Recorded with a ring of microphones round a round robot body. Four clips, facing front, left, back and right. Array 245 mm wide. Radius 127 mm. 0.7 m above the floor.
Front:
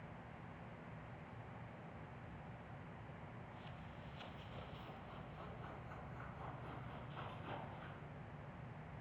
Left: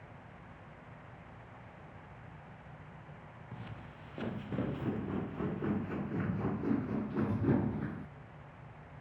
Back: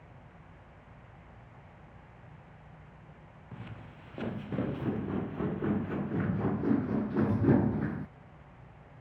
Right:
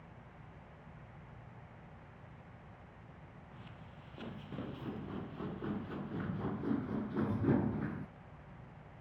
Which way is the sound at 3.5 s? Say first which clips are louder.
Left 7 dB, back 6 dB; 155° left.